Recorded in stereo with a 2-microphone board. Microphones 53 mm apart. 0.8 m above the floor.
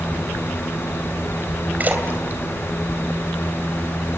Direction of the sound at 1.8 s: 35° right (ahead or behind).